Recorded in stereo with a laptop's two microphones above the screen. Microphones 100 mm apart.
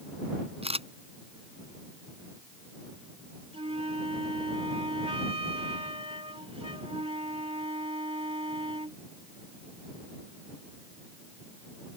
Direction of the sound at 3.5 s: 75° right (ahead or behind).